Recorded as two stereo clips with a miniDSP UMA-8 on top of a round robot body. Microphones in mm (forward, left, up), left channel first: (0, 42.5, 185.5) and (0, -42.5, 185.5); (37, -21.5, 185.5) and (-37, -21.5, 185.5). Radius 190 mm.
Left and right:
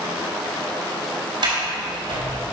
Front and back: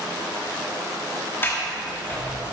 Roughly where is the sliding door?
Ahead right.